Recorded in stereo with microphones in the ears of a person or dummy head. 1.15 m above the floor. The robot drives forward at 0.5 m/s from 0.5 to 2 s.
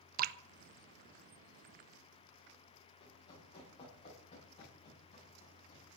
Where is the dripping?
50° right (ahead or behind), 0.6 m.